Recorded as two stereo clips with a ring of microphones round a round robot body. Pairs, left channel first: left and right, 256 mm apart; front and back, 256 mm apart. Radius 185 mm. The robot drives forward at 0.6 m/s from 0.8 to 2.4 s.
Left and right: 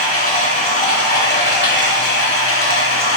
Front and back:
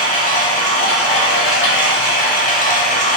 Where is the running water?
30° left, 1.6 m; by 3.2 s 60° left, 1.0 m.